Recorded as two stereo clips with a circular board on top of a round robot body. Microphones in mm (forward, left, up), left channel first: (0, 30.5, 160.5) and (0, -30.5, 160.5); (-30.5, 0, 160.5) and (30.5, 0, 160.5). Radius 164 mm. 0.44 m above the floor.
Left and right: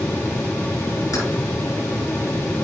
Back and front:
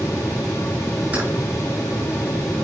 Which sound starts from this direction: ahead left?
Keys jangling, at 1.1 s.